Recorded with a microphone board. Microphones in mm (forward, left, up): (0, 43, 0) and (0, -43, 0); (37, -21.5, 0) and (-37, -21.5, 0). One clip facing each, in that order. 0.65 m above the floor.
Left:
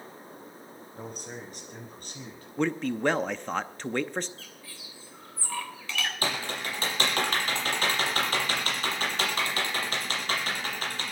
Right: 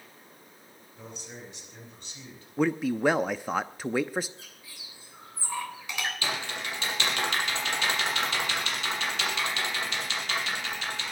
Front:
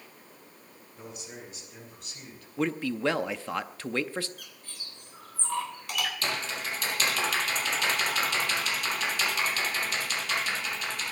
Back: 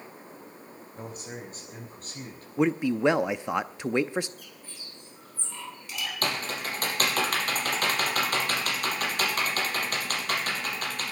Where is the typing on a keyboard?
140° left, 4.5 m.